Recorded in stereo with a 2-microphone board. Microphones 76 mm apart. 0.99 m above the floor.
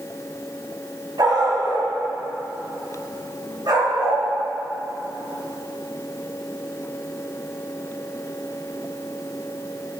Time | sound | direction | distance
1.2 | a dog barking | 60° right (ahead or behind) | 2.5 m